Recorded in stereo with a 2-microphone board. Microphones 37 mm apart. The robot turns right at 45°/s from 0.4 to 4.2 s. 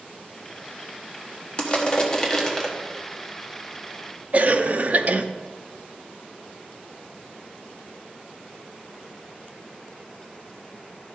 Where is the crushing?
30° left (ahead or behind), 1.3 m; by 2.7 s 5° left (ahead or behind), 1.3 m.